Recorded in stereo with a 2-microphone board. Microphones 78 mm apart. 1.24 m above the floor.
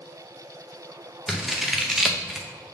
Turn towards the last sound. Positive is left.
turn(degrees=-5)  # may be behind; listen again after turning